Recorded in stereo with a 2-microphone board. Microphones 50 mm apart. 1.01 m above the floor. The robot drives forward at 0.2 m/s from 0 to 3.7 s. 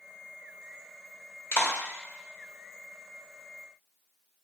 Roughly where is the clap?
Left.